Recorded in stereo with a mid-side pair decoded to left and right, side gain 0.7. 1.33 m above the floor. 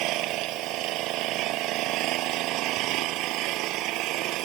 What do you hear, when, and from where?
0.0 s an engine running: 60° right